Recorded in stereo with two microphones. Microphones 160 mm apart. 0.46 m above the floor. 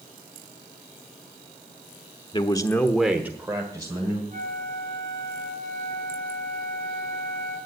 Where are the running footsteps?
No running footsteps in this recording.